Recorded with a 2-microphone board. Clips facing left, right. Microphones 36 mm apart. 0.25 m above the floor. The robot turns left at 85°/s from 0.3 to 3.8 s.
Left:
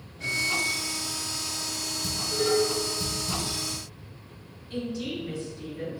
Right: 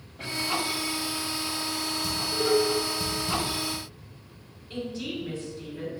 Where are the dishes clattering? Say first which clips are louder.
Even; 35° left (ahead or behind), 1.9 m; by 3.4 s 65° right (ahead or behind), 1.9 m.